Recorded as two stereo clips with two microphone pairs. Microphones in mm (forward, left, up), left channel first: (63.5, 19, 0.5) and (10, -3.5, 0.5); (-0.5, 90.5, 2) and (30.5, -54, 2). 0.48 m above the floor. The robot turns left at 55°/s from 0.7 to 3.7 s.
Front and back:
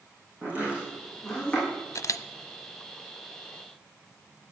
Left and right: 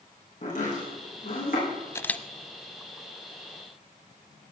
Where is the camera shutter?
35° left, 0.5 m; by 2.2 s 20° left, 0.5 m.